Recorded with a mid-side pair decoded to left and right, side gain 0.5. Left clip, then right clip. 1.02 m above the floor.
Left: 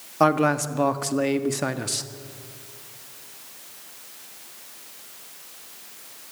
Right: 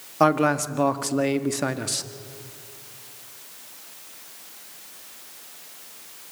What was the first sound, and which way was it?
A man speaking, straight ahead.